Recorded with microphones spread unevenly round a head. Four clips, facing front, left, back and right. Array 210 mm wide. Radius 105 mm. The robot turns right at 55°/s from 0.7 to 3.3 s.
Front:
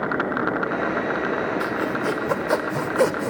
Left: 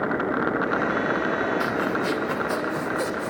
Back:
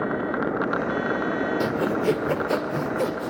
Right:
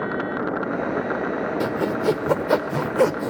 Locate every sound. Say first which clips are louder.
1.6 s sawing: right 3 dB, back 1 dB; 135° right, 1.7 m; by 3.3 s 40° right, 1.7 m